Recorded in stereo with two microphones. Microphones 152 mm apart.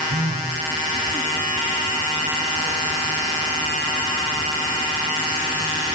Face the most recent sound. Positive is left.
turn(degrees=-70)  # may be behind; listen again after turning